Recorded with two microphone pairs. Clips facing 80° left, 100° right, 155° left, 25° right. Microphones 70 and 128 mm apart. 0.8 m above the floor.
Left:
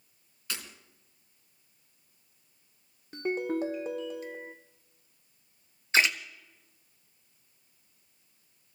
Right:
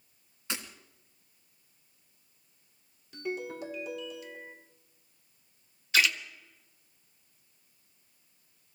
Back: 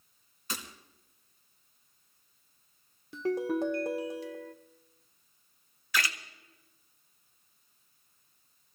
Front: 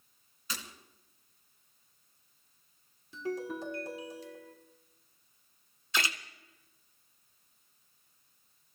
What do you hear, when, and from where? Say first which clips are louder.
0.5 s breaking glass: right 2 dB, back 2 dB; 165° right, 2.5 m
3.1 s a ringtone: left 6 dB, back 7 dB; 130° left, 1.7 m
5.9 s a splash: left 1 dB, back 1 dB; 30° left, 1.0 m